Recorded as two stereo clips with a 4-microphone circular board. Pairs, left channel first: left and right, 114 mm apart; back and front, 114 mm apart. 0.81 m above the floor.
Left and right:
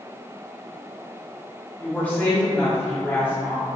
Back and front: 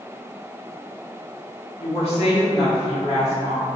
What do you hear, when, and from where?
1.8 s a woman speaking: 165° left, 1.4 m